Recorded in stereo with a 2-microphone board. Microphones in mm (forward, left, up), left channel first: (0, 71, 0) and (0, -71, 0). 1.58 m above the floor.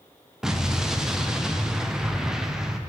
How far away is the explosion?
About 0.5 m.